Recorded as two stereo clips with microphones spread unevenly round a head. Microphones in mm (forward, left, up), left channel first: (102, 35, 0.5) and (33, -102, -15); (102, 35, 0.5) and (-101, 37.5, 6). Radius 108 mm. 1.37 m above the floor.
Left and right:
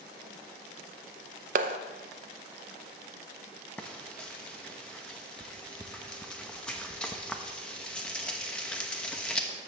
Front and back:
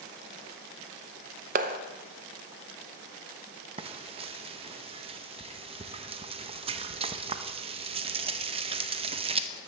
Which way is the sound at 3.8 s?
135° left.